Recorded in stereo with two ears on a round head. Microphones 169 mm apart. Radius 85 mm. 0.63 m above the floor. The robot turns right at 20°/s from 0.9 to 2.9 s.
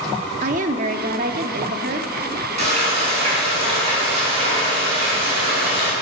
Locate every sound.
0.4 s a woman speaking: 45° right (ahead or behind), 1.1 m; by 2.1 s 50° right (ahead or behind), 1.1 m
2.6 s frying: 35° right (ahead or behind), 7 m; by 5.9 s 30° right (ahead or behind), 7 m